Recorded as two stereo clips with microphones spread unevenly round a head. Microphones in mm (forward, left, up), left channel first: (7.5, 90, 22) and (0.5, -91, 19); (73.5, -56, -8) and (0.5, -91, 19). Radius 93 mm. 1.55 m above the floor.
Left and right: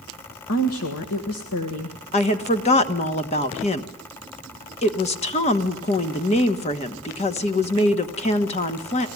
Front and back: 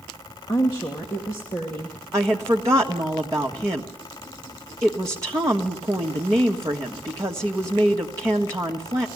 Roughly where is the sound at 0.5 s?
Left.